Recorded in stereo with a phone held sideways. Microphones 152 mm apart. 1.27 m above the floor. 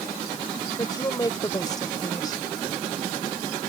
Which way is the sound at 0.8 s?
25° left (ahead or behind).